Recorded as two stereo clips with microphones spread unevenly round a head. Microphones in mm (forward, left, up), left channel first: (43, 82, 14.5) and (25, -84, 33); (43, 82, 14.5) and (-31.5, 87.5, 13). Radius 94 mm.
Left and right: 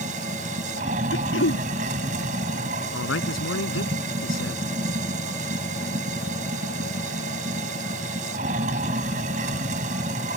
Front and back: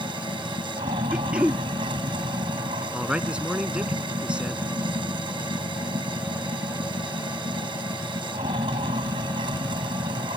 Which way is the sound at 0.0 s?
150° right.